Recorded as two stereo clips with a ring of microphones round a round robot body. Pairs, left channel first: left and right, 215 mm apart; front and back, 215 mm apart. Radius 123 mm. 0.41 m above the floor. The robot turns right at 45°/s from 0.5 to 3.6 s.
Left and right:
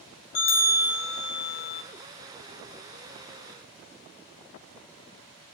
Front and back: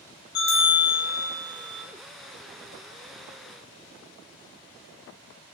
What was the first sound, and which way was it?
A bell, 50° left.